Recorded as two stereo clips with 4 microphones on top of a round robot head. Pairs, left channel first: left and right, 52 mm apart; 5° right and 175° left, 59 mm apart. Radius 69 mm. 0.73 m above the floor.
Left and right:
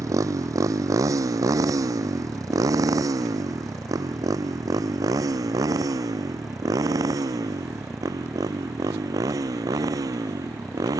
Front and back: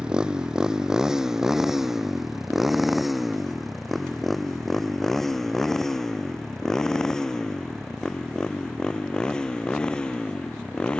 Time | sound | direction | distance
0.0 | a motorcycle | 110° right | ?